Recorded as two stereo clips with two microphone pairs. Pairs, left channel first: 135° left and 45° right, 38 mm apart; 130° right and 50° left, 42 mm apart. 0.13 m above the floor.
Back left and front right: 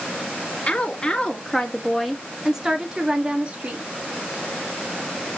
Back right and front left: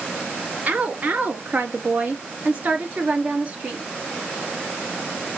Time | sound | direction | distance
0.7 | a woman speaking | 85° left | 1.8 m